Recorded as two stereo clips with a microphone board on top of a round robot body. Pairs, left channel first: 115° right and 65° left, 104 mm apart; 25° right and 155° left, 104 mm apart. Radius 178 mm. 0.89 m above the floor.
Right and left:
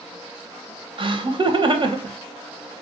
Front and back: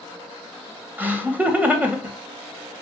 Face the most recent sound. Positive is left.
turn(degrees=85)